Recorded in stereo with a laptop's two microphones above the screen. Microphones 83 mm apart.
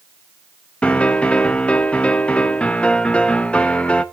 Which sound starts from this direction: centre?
A piano, at 0.8 s.